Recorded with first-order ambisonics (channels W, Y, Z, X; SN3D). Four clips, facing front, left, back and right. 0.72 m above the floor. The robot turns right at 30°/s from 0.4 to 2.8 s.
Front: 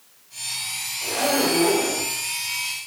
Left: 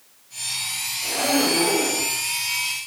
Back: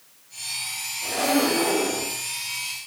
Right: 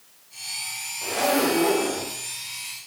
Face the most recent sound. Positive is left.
turn(degrees=0)